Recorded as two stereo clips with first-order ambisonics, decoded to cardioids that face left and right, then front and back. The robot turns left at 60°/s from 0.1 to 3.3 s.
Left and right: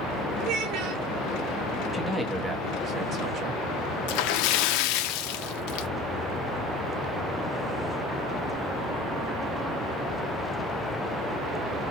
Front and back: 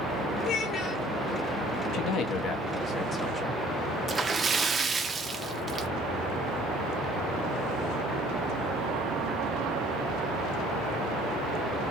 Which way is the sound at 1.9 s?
20° left.